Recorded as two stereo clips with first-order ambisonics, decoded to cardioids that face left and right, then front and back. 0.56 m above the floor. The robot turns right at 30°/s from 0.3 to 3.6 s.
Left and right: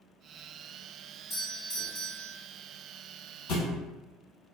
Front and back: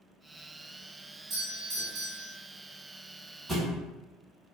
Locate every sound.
1.3 s a doorbell: 145° left, 1.6 m; by 2.4 s 175° left, 1.6 m
3.5 s a thud: 95° left, 1.2 m; by 3.8 s 100° left, 1.2 m